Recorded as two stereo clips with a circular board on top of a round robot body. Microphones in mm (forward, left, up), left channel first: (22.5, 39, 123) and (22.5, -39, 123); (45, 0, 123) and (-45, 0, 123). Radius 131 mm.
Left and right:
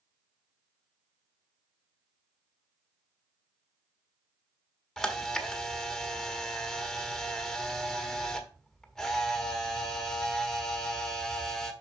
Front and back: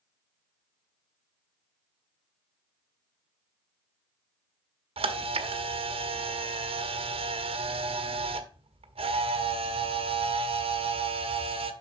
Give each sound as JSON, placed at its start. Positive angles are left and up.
{"t": 5.0, "sound": "a camera shutter", "azimuth_deg": 175, "distance_m": 1.1}